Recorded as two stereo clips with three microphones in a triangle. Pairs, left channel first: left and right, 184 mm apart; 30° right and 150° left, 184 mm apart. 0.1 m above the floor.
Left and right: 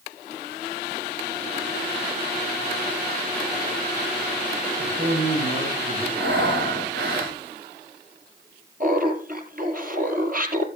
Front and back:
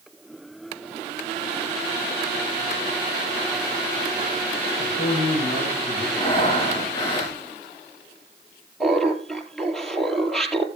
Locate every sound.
4.8 s a man speaking: 45° right, 9.5 m
6.2 s breathing: 95° right, 5 m
8.8 s laughter: 115° right, 2 m